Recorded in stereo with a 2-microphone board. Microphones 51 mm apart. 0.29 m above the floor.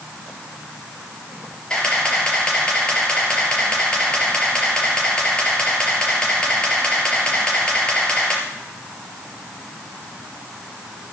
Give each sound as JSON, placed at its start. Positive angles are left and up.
{"t": 1.7, "sound": "a camera shutter", "side_deg": 15, "distance_m": 4.5}